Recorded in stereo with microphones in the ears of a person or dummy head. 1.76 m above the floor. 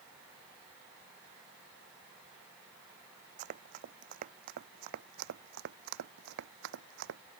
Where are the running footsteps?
45° right (ahead or behind); by 7.2 s 65° right (ahead or behind).